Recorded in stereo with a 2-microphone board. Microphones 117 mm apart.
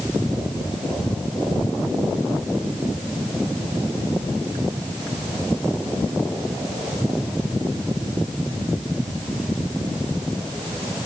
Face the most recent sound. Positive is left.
No sound to turn to.